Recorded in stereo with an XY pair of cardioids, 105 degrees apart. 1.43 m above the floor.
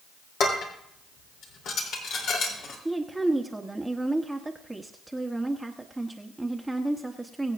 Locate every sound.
0.4 s dishes clattering: 70° left, 3 m
2.9 s a woman speaking: 10° right, 1.0 m